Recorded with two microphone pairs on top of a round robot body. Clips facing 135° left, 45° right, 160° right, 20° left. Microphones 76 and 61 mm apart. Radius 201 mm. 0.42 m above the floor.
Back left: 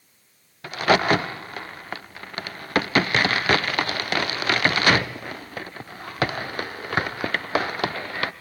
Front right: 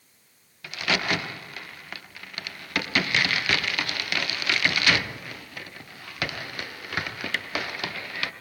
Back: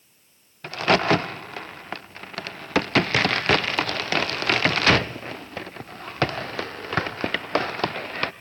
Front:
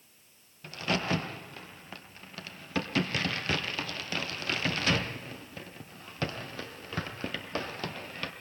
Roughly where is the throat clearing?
I don't hear throat clearing.